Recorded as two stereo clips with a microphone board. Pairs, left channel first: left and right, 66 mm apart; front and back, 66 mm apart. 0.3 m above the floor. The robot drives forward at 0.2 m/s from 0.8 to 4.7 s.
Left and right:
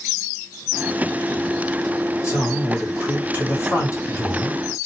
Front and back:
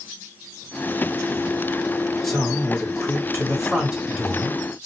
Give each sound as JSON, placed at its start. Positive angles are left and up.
{"t": 2.2, "sound": "a man speaking", "azimuth_deg": 85, "distance_m": 1.6}